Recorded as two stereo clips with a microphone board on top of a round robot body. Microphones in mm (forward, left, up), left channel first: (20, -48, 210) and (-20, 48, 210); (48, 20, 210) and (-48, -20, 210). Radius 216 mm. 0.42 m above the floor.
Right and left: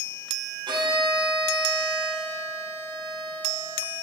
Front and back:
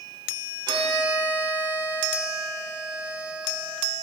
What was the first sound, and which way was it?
A violin, 155° left.